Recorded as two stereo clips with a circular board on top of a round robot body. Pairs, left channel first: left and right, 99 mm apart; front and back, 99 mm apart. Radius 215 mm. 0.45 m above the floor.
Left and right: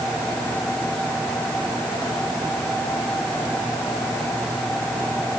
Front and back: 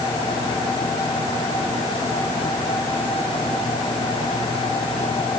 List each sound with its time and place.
Only background noise.